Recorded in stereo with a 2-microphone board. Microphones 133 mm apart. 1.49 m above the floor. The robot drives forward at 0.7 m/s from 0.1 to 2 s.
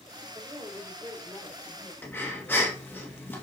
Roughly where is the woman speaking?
Centre.